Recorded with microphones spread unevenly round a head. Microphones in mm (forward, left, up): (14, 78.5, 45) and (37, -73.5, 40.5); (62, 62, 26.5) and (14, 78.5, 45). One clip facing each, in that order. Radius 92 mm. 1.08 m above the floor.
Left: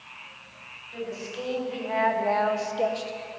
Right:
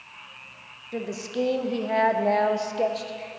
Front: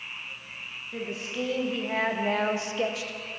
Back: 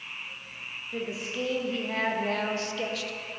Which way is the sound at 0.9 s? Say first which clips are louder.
Right 5 dB, even; 100° right.